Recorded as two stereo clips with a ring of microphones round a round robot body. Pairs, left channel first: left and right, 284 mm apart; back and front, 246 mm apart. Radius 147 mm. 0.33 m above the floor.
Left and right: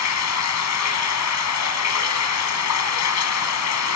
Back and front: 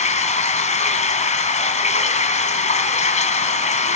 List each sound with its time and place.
0.0 s running water: 120° left, 2.5 m